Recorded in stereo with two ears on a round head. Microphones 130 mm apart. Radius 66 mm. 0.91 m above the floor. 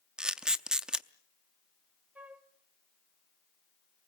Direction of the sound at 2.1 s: 10° right (ahead or behind).